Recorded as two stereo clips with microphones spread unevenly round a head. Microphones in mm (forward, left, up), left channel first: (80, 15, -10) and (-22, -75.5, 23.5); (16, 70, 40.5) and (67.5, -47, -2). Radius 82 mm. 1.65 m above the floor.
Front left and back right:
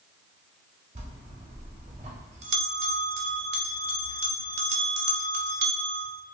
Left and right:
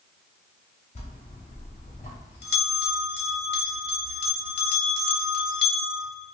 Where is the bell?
170° left, 0.6 m.